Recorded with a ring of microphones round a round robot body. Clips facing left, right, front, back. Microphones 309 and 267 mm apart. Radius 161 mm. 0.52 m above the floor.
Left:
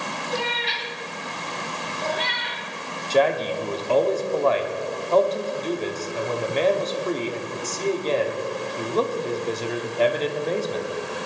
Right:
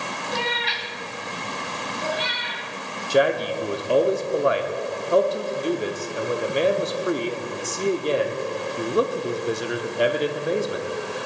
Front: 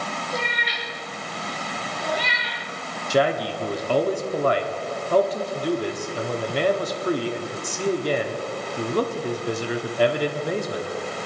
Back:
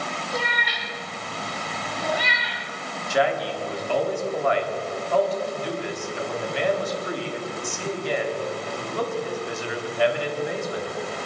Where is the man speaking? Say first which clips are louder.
Right 1 dB, front 2 dB; 20° right, 1.3 m.